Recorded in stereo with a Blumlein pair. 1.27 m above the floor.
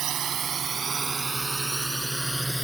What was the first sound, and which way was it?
A drone, 30° right.